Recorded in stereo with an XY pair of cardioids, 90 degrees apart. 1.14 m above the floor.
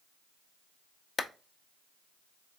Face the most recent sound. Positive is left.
turn(degrees=40)